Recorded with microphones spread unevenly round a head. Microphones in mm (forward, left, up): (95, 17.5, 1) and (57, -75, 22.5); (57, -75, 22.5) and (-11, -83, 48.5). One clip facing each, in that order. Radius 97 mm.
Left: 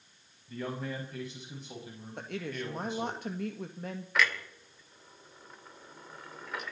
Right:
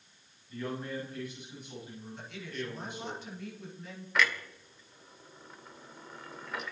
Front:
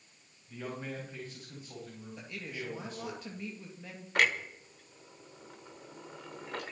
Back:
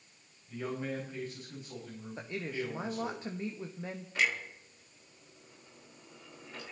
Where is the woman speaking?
110° left, 1.8 m.